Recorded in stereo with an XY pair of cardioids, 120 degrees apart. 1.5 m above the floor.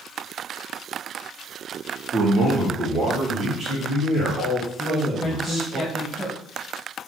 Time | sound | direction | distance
2.1 | a man speaking | 50° right | 0.9 m
4.8 | a man speaking | 5° right | 1.0 m